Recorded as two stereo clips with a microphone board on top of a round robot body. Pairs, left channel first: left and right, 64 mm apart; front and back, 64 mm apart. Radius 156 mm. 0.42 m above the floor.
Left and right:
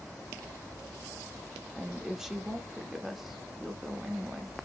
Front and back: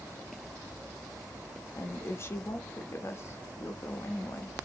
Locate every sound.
1.8 s a woman speaking: 10° right, 0.9 m